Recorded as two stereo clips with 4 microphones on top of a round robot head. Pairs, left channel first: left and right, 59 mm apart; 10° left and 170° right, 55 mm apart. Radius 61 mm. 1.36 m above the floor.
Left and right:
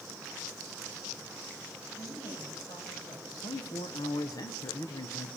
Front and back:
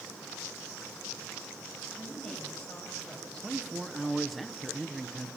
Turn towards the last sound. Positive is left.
turn(degrees=100)